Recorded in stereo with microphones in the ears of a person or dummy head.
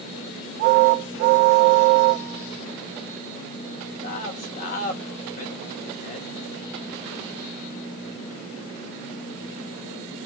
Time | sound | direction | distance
4.0 | a man speaking | 45° left (ahead or behind) | 1.9 m